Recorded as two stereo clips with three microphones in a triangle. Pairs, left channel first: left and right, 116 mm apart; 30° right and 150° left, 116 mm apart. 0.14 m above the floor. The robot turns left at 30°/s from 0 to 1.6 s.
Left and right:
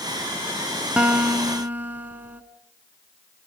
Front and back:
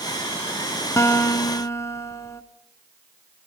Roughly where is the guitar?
Ahead.